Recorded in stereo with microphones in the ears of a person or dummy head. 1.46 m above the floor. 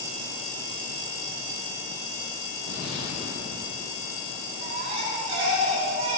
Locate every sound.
2.7 s an explosion: 60° left (ahead or behind), 2 m
4.6 s a baby crying: 40° right (ahead or behind), 1.7 m